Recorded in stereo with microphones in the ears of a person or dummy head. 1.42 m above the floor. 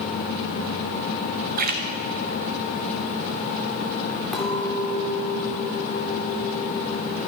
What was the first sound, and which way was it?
A splash, 45° right (ahead or behind).